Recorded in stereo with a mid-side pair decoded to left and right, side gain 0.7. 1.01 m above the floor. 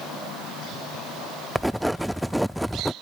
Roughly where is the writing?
Ahead.